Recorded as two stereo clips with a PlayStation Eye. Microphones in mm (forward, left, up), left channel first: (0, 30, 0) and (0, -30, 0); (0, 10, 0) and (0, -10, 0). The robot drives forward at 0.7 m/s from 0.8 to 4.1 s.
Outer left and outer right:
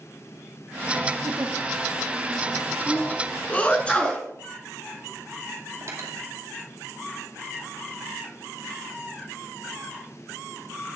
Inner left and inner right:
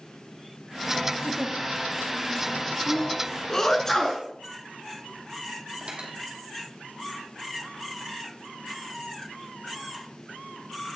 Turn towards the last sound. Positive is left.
turn(degrees=-60)  # may be behind; listen again after turning